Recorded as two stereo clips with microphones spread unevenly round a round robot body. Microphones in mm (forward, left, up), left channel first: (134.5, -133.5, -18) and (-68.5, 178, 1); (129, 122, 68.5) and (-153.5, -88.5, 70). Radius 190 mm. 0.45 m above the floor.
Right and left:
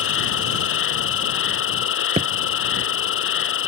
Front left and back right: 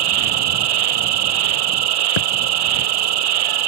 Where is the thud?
50° left.